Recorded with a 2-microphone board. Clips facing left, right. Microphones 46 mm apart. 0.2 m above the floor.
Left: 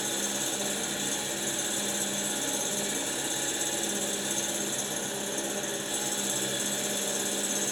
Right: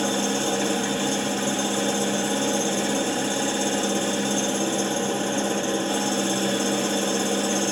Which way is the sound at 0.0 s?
45° right (ahead or behind).